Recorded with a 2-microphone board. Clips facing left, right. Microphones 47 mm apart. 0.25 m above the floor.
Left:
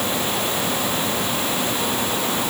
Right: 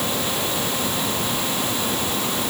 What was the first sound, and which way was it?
Only background noise.